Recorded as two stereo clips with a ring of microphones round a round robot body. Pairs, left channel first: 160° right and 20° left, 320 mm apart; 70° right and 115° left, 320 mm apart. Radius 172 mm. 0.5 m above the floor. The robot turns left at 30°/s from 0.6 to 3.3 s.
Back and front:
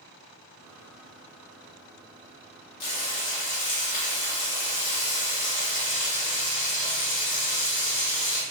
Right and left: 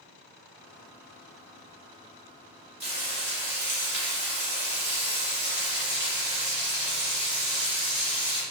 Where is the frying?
175° right, 1.7 m; by 8.4 s 170° left, 1.7 m.